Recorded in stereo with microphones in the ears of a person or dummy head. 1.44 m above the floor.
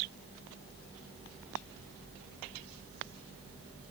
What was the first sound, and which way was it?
Only background noise.